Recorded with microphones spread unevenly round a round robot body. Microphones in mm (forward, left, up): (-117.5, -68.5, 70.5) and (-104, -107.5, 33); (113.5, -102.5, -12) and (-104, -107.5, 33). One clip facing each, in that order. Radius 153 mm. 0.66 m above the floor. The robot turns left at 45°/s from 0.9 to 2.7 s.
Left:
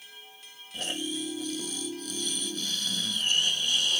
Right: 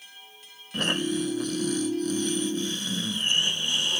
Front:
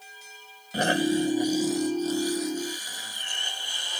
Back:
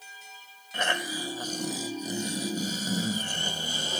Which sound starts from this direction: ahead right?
Snoring, at 0.7 s.